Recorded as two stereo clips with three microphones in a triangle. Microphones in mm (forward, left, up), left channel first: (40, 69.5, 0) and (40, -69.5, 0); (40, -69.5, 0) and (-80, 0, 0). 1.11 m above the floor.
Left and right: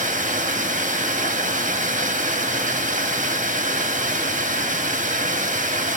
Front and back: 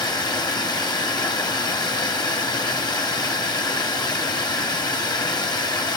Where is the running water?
90° right, 1.0 m.